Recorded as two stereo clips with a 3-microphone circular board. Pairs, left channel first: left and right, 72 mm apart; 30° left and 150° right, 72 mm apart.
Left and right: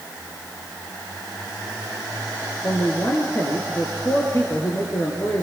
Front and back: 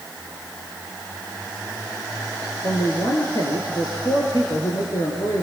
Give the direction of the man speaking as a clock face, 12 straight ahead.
11 o'clock.